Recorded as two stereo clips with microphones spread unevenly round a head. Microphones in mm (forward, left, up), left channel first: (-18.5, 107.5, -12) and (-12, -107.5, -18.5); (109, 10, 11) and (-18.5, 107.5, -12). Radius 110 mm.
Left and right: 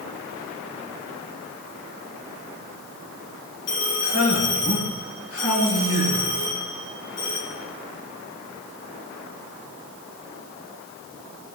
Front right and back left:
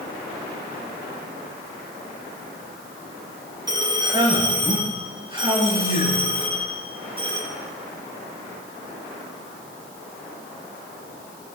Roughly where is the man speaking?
Left.